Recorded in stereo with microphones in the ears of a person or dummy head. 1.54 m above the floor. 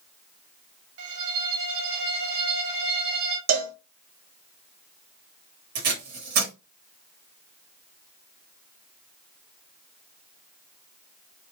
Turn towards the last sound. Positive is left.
turn(degrees=-45)  # may be behind; listen again after turning